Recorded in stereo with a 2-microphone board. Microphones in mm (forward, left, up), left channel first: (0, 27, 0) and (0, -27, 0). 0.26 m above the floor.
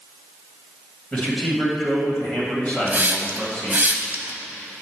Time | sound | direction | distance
1.1 | a man speaking | 25° left (ahead or behind) | 1.6 m
2.9 | a hiss | 35° right (ahead or behind) | 0.5 m